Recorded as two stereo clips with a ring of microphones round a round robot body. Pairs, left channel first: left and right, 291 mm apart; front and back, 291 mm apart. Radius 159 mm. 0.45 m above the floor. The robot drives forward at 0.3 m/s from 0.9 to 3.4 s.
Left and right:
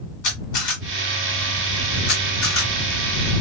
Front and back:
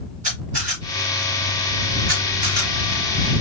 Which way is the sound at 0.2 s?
110° left.